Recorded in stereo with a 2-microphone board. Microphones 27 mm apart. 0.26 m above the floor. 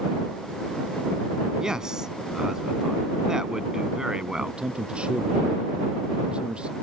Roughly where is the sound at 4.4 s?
Right.